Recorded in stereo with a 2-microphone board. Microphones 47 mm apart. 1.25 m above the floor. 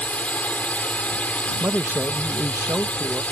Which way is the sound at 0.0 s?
35° left (ahead or behind).